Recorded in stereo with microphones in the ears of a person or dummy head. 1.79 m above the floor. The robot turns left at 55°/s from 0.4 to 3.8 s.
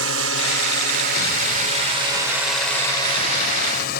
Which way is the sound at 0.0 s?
80° right.